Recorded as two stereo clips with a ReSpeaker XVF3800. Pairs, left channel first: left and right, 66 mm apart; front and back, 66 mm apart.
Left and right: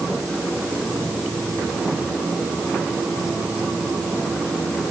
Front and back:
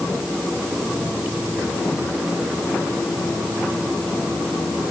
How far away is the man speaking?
I don't hear a man speaking.